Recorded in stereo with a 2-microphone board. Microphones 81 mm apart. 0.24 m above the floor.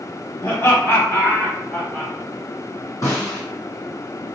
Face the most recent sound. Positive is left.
turn(degrees=40)  # may be behind; listen again after turning